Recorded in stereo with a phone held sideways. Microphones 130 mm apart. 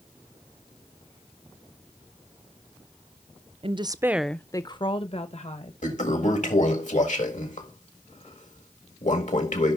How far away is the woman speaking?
About 0.6 m.